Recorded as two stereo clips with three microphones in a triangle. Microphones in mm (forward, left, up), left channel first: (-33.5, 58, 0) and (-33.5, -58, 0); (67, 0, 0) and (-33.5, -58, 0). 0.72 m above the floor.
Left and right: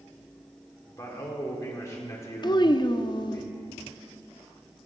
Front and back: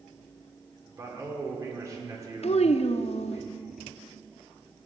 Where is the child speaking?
45° left, 0.5 m.